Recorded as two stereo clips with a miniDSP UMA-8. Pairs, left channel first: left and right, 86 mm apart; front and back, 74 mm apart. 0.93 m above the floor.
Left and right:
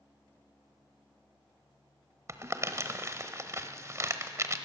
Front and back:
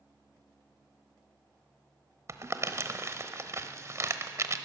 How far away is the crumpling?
About 1.0 m.